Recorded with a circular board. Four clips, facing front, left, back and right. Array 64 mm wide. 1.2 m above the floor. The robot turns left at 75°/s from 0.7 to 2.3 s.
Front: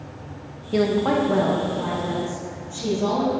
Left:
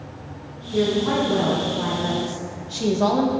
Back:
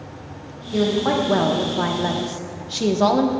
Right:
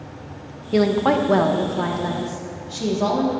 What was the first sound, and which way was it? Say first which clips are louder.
A woman speaking: right 3 dB, even; 70° right.